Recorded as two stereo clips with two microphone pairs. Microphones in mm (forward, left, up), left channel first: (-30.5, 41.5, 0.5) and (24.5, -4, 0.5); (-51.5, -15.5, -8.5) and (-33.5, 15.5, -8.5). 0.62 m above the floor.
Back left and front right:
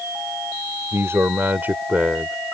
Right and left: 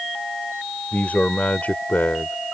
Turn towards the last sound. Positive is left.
turn(degrees=-115)